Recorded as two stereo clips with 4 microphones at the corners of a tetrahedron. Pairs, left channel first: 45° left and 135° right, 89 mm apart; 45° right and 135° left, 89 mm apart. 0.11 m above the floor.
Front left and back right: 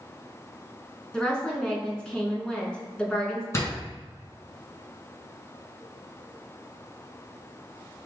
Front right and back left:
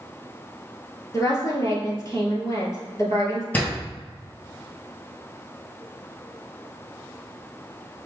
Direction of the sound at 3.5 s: 15° left.